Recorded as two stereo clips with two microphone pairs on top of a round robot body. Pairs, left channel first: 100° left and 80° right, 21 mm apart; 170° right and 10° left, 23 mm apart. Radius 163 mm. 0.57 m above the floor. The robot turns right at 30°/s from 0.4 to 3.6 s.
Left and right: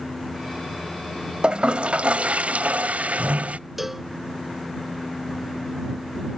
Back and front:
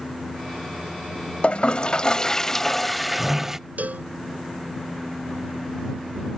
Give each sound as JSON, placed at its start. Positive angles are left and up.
{"t": 1.4, "sound": "a toilet flushing", "azimuth_deg": -130}
{"t": 3.8, "sound": "a cowbell", "azimuth_deg": 0}